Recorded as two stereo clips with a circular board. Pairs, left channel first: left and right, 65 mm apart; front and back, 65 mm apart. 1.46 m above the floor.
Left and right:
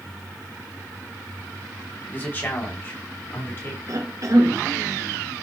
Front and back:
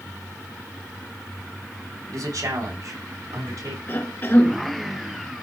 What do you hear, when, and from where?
2.1 s a man speaking: 150° left, 4 m; by 3.8 s 145° left, 6.5 m
3.9 s a cough: 55° right, 2.5 m